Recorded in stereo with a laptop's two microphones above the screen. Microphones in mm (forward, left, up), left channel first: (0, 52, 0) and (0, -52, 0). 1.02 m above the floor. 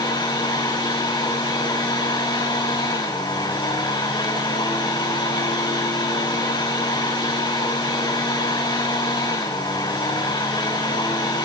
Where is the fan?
45° left (ahead or behind), 5 m.